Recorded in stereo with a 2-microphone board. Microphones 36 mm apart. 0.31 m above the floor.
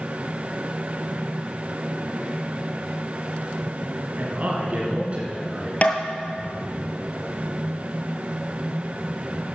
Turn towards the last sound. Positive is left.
turn(degrees=45)  # may be behind; listen again after turning